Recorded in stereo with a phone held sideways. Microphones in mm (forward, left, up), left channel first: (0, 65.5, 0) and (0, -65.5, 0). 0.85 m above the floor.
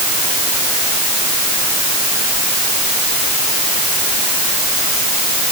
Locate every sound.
Only background noise.